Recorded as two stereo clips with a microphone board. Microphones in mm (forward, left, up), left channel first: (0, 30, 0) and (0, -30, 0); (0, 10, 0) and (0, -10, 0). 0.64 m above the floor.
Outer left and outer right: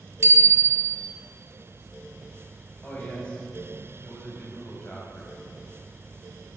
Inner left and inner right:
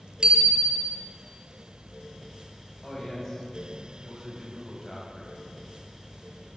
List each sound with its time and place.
0.2 s a bicycle bell: 50° right (ahead or behind), 2 m
2.8 s a man speaking: 20° left (ahead or behind), 4 m